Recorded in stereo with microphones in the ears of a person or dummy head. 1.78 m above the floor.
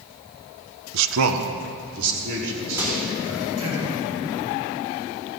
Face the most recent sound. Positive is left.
turn(degrees=-10)  # may be behind; listen again after turning